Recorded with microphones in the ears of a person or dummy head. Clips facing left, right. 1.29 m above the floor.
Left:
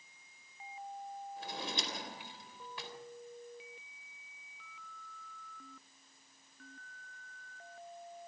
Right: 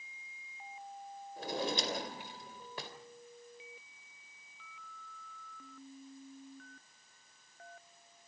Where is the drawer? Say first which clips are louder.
Right 8 dB; 40° right (ahead or behind), 3.5 m.